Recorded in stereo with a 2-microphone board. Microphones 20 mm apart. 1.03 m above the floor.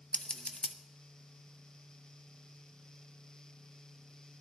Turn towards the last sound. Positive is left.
turn(degrees=55)  # may be behind; listen again after turning